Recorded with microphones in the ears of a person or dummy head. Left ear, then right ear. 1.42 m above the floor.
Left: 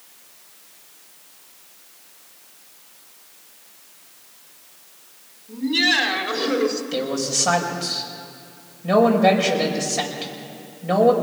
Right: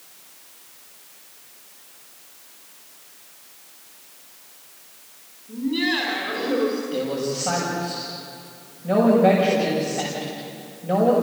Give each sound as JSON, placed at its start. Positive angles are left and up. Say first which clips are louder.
{"t": 5.5, "sound": "laughter", "louder": "left 5 dB", "side_deg": 60, "distance_m": 4.5}
{"t": 6.9, "sound": "a man speaking", "louder": "left 2 dB", "side_deg": 85, "distance_m": 6.0}